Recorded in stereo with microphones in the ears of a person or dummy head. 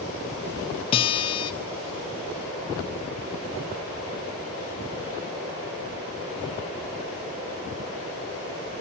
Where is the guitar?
30° left (ahead or behind), 0.8 m.